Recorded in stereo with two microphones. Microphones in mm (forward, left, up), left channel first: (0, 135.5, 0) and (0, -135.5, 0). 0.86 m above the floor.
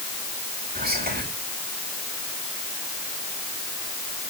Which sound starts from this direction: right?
Whispering, at 0.8 s.